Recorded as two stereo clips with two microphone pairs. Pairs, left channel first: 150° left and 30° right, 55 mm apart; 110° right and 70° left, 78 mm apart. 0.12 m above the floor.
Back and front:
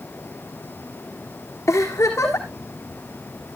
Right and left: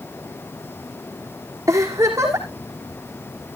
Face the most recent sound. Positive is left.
turn(degrees=125)